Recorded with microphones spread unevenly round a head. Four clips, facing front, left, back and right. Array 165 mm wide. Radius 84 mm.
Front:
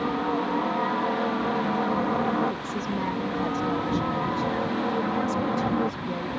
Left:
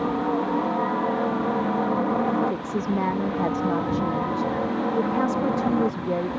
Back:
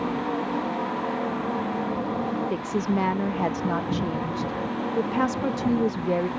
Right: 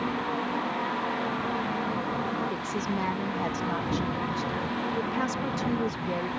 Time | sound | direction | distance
0.0 | a helicopter | 85° left | ?
2.5 | a woman speaking | 145° left | ?